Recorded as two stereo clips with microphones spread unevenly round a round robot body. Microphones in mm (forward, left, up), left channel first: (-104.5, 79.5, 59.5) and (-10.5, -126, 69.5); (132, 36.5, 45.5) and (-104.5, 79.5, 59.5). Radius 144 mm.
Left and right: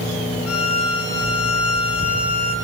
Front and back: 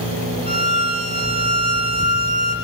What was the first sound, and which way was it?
A violin, 100° left.